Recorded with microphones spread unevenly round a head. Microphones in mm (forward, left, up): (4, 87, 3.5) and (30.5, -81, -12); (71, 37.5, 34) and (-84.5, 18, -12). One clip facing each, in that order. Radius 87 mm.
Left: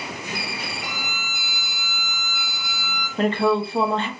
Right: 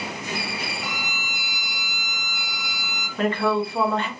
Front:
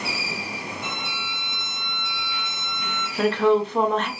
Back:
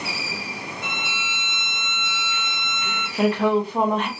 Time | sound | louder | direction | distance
0.8 | a violin | right 1 dB, back 1 dB | 130° right | 0.8 m
3.2 | a woman speaking | left 2 dB, front 1 dB | 90° left | 0.6 m